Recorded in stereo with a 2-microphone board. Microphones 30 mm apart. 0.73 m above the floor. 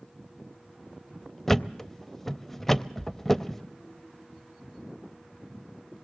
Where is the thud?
5° left (ahead or behind), 0.5 m.